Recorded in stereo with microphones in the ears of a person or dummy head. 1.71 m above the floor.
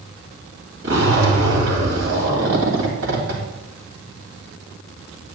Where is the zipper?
75° right (ahead or behind), 2.5 m.